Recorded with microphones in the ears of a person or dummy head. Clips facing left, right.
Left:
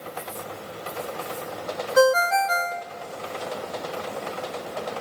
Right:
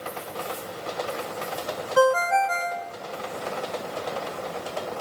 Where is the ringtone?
25° left (ahead or behind), 1.4 m.